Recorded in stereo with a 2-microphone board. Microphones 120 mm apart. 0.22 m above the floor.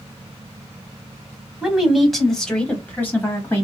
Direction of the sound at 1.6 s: 5° right (ahead or behind).